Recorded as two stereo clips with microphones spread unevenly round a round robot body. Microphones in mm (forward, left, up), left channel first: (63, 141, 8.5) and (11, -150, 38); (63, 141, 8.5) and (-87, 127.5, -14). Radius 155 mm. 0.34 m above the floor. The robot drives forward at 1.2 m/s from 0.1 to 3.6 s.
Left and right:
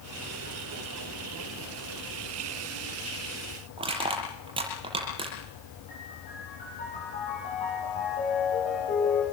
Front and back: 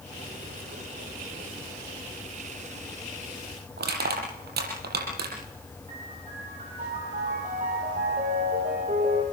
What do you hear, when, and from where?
3.8 s crushing: 175° right, 7.5 m
5.9 s a piano: 145° left, 9 m